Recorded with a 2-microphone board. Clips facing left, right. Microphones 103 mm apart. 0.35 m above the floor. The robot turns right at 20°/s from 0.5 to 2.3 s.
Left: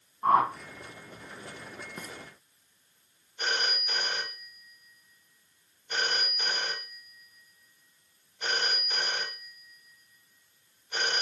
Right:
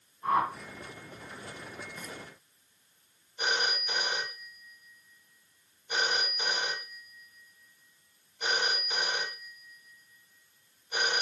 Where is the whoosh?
50° left (ahead or behind), 1.7 m.